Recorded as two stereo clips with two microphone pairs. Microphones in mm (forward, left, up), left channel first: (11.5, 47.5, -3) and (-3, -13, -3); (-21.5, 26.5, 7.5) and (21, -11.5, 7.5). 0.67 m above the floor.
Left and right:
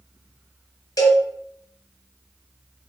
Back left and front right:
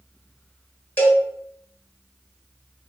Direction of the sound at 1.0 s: 80° left.